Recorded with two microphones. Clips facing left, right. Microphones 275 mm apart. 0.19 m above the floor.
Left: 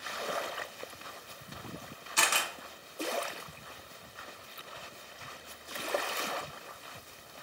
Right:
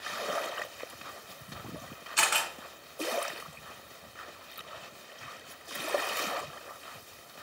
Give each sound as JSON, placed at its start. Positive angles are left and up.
{"t": 2.2, "sound": "a camera shutter", "side_deg": 50, "distance_m": 1.3}